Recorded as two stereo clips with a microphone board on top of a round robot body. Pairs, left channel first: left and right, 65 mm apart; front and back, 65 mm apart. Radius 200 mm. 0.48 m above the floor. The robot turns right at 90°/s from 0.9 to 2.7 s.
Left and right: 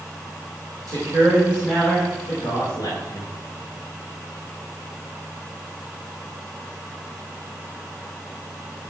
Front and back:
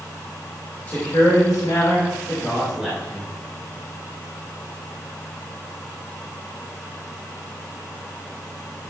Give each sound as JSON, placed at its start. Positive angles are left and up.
{"t": 0.9, "sound": "a man speaking", "azimuth_deg": -70, "distance_m": 5.0}